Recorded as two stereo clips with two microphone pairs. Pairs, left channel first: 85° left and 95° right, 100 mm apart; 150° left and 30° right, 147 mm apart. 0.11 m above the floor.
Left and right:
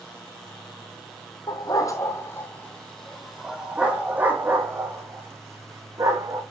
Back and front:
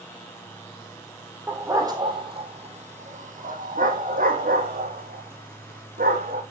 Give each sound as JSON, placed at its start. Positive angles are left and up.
{"t": 1.5, "sound": "a dog barking", "azimuth_deg": 40, "distance_m": 1.6}